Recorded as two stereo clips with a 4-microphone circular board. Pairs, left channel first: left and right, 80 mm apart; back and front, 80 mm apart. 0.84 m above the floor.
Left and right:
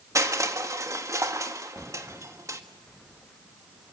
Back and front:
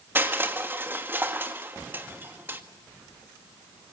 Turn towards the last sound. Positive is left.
turn(degrees=-55)